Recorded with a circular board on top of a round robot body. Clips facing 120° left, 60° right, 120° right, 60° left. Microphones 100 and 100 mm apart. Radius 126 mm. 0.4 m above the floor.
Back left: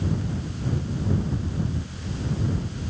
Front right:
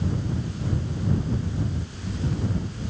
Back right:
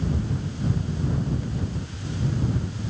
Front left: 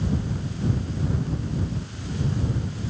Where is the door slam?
No door slam in this recording.